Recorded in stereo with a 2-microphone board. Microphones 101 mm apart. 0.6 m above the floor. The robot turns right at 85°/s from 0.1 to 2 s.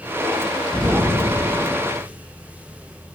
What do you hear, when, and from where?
0.7 s an explosion: 70° right, 1.3 m; by 2.0 s 40° left, 1.3 m